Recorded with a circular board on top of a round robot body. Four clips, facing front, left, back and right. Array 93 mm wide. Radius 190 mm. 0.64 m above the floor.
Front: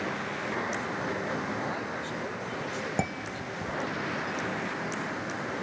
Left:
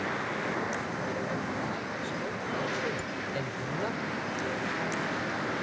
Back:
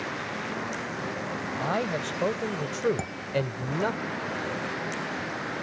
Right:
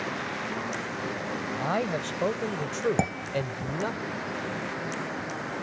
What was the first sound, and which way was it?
A man speaking, 130° right.